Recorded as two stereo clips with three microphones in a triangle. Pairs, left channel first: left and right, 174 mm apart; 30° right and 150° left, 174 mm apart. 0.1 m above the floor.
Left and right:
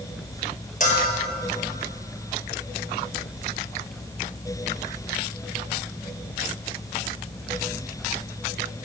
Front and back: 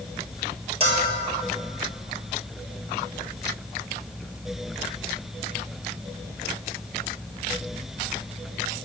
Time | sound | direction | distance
0.8 | a bell | 105° left | 1.2 m